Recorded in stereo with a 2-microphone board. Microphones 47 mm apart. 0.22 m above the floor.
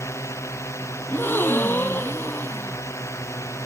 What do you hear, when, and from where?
0.0 s a drone: 70° left (ahead or behind)
1.1 s a gasp: 45° left (ahead or behind)